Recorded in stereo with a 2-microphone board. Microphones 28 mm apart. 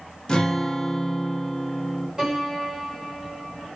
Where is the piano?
20° right (ahead or behind), 1.9 m.